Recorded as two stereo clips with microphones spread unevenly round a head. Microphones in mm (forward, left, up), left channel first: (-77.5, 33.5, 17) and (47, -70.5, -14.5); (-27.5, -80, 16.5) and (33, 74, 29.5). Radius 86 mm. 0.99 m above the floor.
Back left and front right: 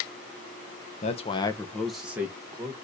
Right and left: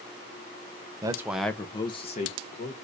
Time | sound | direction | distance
1.0 | a man speaking | 120° left | 0.9 m